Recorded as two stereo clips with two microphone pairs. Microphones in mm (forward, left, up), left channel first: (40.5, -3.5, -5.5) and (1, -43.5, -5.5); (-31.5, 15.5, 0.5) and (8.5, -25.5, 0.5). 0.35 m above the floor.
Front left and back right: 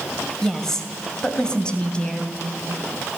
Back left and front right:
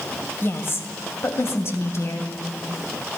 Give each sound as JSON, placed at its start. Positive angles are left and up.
{"t": 0.4, "sound": "a woman speaking", "azimuth_deg": 125, "distance_m": 1.9}